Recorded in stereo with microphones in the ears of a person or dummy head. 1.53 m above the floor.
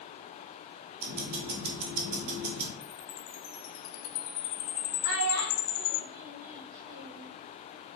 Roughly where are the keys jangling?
I don't hear keys jangling.